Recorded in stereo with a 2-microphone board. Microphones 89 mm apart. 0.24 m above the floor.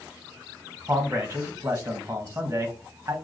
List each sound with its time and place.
0.9 s a man speaking: 30° right (ahead or behind), 1.1 m